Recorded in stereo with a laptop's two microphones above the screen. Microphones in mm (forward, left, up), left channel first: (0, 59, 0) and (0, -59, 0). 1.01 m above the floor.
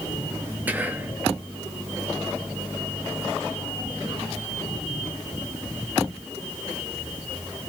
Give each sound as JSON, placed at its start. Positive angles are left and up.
{"t": 0.7, "sound": "whispering", "side_deg": -15, "distance_m": 0.8}